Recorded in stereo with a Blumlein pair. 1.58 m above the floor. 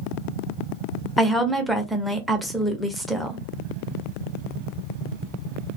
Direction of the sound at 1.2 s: Straight ahead.